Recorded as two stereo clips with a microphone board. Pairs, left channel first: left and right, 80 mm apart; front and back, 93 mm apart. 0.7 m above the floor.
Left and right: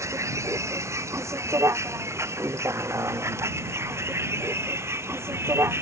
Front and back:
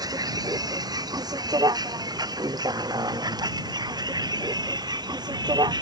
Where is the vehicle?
140° right; by 5.8 s 145° right.